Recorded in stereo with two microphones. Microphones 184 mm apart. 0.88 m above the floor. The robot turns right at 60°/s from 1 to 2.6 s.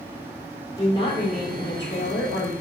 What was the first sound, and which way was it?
A woman speaking, 25° left.